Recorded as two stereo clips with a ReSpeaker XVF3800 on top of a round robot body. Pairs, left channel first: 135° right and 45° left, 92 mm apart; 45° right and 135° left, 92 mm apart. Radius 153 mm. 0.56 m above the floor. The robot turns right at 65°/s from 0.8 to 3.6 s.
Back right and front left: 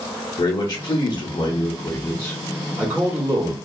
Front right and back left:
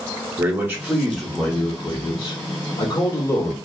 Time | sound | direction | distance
0.4 | a man speaking | 165° right | 1.0 m